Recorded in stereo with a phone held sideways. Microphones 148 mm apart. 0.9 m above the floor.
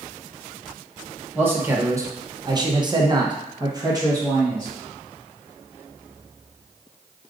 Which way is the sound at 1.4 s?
15° right (ahead or behind).